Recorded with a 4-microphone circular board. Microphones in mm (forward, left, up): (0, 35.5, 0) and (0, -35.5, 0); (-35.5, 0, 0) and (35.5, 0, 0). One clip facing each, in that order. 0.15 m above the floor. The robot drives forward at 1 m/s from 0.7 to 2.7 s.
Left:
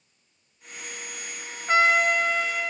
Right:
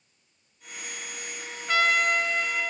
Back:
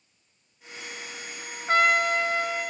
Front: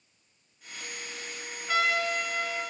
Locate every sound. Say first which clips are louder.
1.7 s a trumpet: left 3 dB, back 6 dB; 145° left, 1.1 m; by 2.7 s 165° left, 2.0 m